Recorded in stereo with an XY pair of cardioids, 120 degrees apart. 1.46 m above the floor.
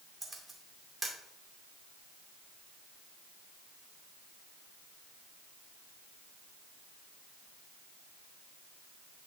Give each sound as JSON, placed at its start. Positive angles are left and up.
{"t": 0.2, "sound": "a camera shutter", "azimuth_deg": -15, "distance_m": 2.5}